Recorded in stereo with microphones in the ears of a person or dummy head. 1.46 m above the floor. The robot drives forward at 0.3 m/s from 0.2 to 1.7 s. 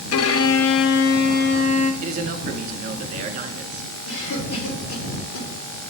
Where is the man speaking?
45° right (ahead or behind), 0.8 m.